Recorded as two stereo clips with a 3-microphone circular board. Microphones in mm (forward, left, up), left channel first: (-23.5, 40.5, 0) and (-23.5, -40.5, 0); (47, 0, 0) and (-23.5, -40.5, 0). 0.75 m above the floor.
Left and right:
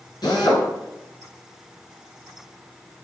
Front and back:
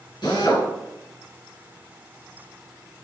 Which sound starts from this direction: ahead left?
A drill, at 0.2 s.